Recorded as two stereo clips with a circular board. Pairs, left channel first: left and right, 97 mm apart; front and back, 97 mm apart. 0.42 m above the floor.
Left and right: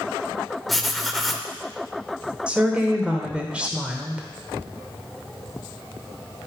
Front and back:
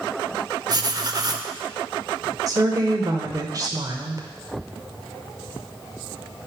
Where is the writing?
Straight behind, 0.6 m.